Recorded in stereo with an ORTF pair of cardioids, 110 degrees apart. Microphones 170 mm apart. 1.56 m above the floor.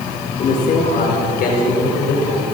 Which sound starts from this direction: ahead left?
A man speaking, at 0.4 s.